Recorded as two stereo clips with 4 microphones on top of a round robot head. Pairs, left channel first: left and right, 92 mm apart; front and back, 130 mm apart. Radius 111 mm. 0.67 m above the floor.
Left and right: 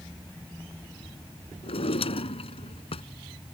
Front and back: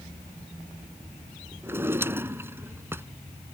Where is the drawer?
105° left.